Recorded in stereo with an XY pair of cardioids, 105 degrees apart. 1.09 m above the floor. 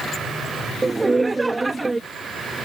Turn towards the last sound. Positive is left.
turn(degrees=-20)